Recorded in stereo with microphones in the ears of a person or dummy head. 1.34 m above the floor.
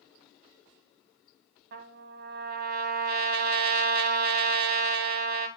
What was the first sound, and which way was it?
A trumpet, 55° right (ahead or behind).